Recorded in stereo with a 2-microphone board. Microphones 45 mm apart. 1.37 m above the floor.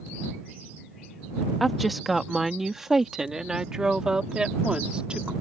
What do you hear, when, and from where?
1.6 s a woman speaking: centre (ahead or behind); by 5.3 s 20° right (ahead or behind)